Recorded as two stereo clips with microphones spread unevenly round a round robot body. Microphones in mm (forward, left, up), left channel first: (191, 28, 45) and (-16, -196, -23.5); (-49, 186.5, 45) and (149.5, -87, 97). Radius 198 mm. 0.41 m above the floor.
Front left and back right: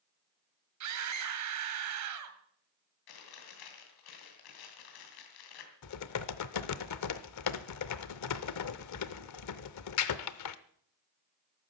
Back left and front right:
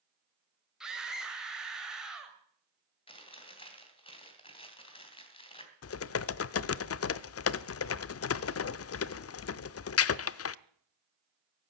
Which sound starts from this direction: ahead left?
Chewing, at 3.1 s.